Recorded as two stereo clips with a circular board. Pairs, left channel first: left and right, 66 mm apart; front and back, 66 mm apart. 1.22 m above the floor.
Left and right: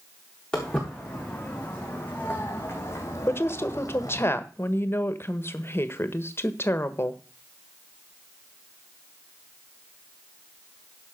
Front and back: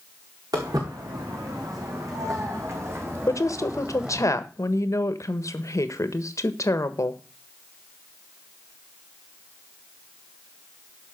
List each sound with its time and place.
0.5 s footsteps: 165° left, 5.5 m; by 4.3 s 100° left, 2.5 m
3.3 s a woman speaking: 35° left, 1.2 m